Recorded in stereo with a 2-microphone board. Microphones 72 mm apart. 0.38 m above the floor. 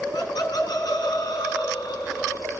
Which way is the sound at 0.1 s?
65° left (ahead or behind).